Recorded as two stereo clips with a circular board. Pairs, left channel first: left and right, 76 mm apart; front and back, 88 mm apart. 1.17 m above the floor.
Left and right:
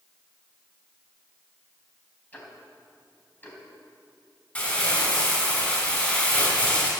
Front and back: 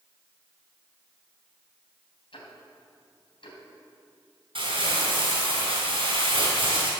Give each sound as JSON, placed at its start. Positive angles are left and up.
{"t": 2.3, "sound": "ticking", "azimuth_deg": 20, "distance_m": 3.5}
{"t": 4.5, "sound": "crumpling", "azimuth_deg": 160, "distance_m": 4.5}